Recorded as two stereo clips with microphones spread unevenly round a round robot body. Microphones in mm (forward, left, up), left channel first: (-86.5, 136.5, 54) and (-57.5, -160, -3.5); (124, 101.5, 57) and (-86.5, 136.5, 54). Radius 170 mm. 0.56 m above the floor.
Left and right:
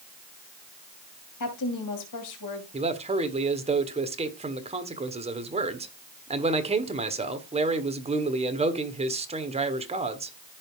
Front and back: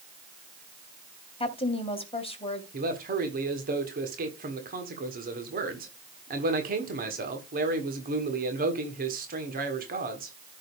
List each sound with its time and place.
1.4 s a woman speaking: 55° left, 3 m
2.7 s a man speaking: 145° right, 1.6 m